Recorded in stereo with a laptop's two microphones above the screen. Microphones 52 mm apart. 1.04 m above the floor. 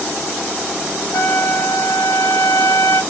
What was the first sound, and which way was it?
A trumpet, 60° left (ahead or behind).